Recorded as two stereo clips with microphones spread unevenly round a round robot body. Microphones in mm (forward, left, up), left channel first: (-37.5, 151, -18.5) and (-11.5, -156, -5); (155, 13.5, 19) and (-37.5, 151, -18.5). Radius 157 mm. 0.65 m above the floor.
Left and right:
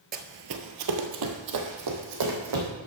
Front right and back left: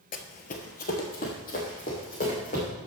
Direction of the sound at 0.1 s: 40° right.